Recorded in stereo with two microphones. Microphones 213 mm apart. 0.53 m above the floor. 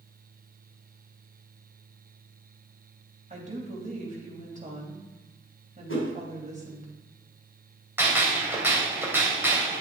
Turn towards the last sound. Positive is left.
turn(degrees=-10)  # may be behind; listen again after turning